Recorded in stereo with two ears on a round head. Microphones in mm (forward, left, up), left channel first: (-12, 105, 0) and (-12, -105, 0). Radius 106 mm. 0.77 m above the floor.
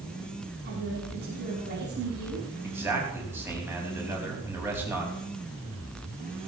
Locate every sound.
0.7 s a woman speaking: 45° right (ahead or behind), 5.5 m
2.6 s a man speaking: 10° right (ahead or behind), 5 m